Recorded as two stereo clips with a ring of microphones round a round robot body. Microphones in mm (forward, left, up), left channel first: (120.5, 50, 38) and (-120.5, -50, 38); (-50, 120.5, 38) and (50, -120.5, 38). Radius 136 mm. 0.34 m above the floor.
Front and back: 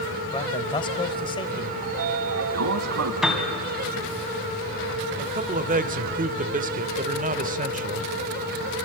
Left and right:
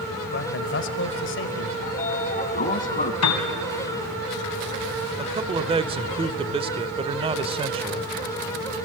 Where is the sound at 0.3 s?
90° left, 1.6 m.